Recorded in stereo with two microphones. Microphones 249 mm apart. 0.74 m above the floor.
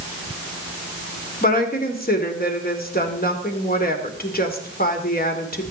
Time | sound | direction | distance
1.4 | a woman speaking | 35° left (ahead or behind) | 2.5 m